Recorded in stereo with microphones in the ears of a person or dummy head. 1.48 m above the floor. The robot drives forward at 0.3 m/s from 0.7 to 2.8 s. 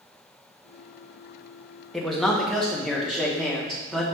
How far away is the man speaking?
About 0.6 m.